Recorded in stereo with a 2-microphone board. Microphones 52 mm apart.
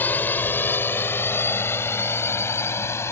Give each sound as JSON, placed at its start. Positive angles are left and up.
{"t": 0.0, "sound": "a drone", "side_deg": 35}